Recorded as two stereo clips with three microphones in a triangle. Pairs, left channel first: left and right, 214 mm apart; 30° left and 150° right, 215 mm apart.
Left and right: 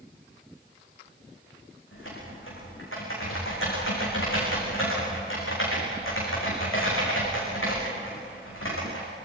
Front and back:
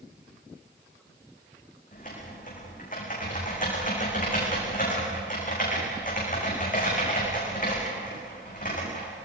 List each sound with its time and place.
1.9 s typing on a keyboard: 80° left, 9.5 m